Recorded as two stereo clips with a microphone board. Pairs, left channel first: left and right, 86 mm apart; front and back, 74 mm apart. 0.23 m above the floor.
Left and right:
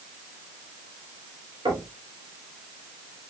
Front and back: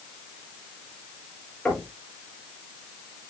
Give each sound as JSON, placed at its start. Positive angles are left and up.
{"t": 1.6, "sound": "knocking", "azimuth_deg": -80, "distance_m": 5.5}